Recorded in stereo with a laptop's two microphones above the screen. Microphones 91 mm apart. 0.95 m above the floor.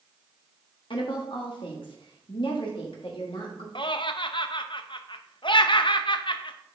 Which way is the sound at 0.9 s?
70° left (ahead or behind).